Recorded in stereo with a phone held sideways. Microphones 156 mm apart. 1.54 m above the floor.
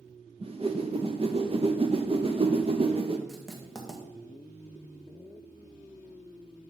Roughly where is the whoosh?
Right.